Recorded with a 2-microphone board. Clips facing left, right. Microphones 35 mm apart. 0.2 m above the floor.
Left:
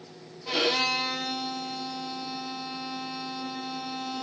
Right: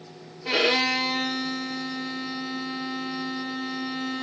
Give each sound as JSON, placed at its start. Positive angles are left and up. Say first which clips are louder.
{"t": 0.5, "sound": "a violin", "louder": "right 4 dB", "side_deg": -65, "distance_m": 4.5}